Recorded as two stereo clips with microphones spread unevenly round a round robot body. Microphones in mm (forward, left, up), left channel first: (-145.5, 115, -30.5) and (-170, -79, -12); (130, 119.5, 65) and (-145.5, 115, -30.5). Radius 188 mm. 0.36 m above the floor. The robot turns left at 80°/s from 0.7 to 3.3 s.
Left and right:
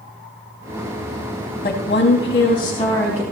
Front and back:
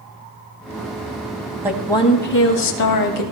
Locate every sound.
1.6 s a woman speaking: 110° left, 2.5 m; by 3.2 s 20° right, 2.5 m